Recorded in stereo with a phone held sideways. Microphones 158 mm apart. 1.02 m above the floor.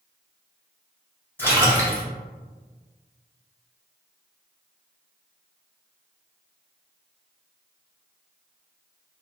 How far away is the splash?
About 1.9 m.